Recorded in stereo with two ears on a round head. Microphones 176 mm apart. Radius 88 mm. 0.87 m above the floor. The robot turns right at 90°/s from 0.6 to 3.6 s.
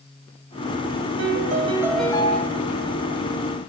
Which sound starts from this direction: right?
A piano, at 1.2 s.